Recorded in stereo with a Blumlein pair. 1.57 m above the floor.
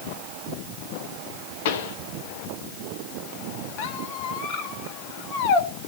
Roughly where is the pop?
Ahead left.